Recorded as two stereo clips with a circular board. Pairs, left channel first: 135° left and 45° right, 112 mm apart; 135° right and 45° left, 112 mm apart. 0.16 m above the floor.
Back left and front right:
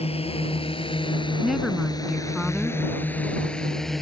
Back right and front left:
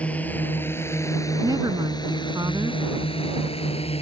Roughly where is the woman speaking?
Ahead left.